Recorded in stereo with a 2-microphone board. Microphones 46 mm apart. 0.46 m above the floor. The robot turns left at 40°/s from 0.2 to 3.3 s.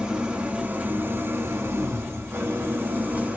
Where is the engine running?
20° right, 0.9 m; by 3.4 s 145° right, 0.9 m.